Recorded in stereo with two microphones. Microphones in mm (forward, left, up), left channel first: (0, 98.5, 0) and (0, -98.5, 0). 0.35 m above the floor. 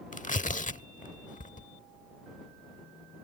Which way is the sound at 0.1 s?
40° left (ahead or behind).